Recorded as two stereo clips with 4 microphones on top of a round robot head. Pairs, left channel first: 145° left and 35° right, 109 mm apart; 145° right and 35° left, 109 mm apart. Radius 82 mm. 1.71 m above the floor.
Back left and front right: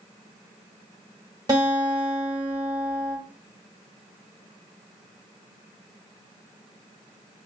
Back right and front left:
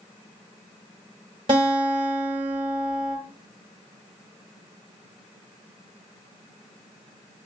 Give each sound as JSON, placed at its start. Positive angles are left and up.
{"t": 1.5, "sound": "a guitar", "azimuth_deg": 10, "distance_m": 1.3}